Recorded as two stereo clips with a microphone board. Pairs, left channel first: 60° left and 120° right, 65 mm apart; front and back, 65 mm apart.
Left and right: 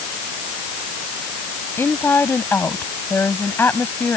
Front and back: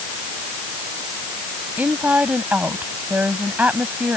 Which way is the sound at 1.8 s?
115° left.